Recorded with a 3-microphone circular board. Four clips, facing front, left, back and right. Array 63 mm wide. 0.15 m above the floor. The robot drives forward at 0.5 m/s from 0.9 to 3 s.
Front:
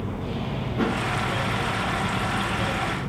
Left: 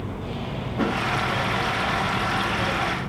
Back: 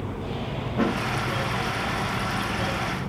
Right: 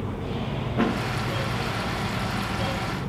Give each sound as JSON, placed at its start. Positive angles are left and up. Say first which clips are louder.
{"t": 0.8, "sound": "a thud", "louder": "even, back 1 dB", "azimuth_deg": -115, "distance_m": 7.0}